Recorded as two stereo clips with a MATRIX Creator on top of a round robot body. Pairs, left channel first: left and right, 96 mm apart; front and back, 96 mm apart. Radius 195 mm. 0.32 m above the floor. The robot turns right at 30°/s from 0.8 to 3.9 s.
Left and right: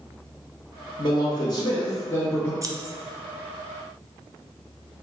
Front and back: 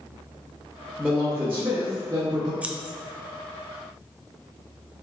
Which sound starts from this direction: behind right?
Scissors, at 2.6 s.